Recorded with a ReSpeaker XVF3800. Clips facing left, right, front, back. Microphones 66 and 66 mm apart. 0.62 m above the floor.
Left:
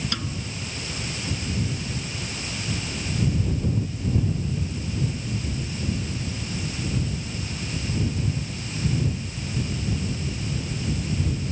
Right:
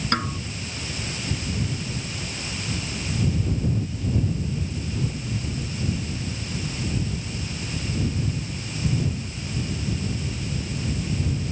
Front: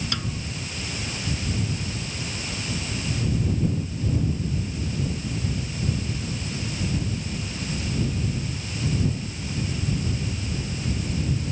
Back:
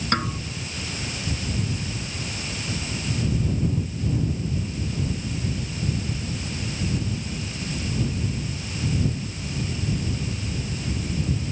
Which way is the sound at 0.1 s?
135° right.